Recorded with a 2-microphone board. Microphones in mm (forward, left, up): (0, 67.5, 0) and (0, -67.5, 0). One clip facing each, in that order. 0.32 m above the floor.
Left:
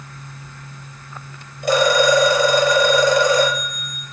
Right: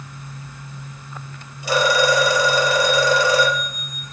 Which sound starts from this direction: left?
A phone ringing, at 1.6 s.